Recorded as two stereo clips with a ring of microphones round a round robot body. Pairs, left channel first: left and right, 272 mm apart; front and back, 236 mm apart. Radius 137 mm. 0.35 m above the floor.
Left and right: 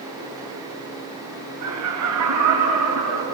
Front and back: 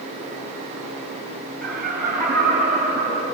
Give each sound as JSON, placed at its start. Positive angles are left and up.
{"t": 1.6, "sound": "laughter", "azimuth_deg": -90, "distance_m": 3.5}